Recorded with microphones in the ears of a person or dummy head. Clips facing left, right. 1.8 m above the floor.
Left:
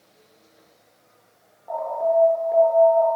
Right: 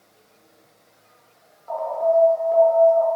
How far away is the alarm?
About 7 m.